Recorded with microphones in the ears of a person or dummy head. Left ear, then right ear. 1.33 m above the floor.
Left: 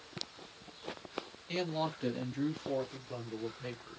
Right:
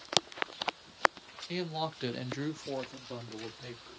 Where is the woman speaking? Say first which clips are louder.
Left 1 dB; 10° right (ahead or behind), 1.2 m; by 4.0 s 45° right (ahead or behind), 2.5 m.